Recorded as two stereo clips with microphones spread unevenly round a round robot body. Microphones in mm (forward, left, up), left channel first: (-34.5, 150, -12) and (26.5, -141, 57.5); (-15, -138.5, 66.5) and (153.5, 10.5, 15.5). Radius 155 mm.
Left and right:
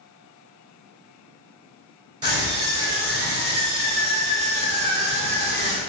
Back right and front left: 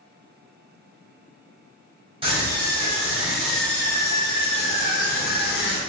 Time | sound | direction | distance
2.2 | a scream | 5° left | 1.8 m